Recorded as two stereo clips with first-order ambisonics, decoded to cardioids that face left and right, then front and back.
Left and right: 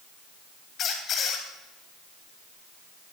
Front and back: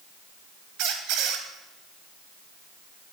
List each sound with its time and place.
0.8 s a squeak: 145° left, 2.5 m